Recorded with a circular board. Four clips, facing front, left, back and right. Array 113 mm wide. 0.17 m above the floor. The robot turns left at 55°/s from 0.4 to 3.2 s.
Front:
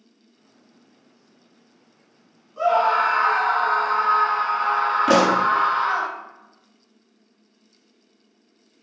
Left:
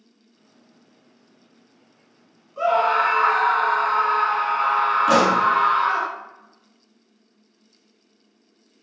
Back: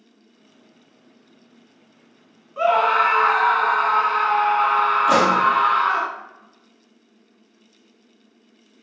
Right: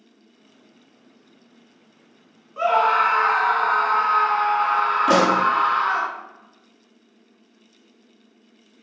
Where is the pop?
20° right, 1.5 m.